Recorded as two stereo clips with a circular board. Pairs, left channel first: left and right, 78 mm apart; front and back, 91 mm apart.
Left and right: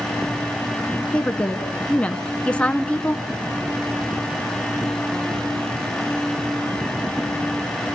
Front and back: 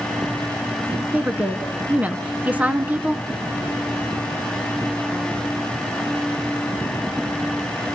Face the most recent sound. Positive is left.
turn(degrees=140)